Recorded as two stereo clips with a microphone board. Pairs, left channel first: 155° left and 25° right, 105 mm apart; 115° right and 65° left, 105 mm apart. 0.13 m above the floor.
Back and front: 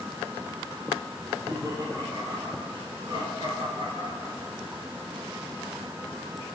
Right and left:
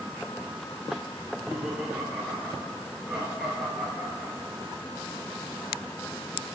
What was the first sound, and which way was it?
Laughter, 20° right.